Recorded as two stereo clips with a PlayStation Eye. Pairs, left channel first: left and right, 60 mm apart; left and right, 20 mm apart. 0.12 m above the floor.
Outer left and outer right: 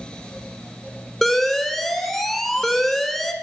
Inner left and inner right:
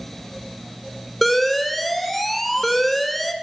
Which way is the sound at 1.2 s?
5° left (ahead or behind).